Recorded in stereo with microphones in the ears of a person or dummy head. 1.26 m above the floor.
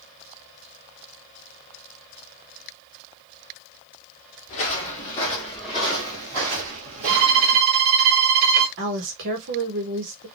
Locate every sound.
4.5 s footsteps: 30° left (ahead or behind), 1.5 m; by 7.6 s 45° right (ahead or behind), 1.9 m
7.1 s a violin: 50° right (ahead or behind), 1.8 m
8.8 s a woman speaking: 65° right (ahead or behind), 1.2 m